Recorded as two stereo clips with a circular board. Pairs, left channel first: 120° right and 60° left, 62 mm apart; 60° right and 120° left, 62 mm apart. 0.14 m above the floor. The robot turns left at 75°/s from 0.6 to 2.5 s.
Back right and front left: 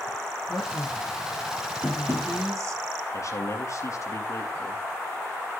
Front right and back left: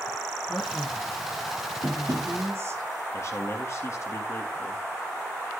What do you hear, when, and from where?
0.5 s a man speaking: 130° right, 2.5 m; by 2.8 s 85° left, 2.5 m
1.8 s tapping: 130° left, 3 m; by 2.3 s 95° left, 3 m
3.1 s a man speaking: 95° right, 2.5 m